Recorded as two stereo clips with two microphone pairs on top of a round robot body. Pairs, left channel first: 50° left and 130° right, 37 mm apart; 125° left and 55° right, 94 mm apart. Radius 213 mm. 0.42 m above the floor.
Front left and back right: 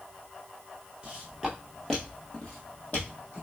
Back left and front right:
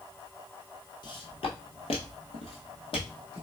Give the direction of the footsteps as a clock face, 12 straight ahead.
7 o'clock.